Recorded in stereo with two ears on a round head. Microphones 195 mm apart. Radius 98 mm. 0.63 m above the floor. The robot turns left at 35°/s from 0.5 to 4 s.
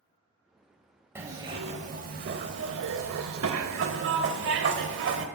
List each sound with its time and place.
1.1 s a zipper: 10° right, 0.6 m; by 5.3 s 110° right, 0.6 m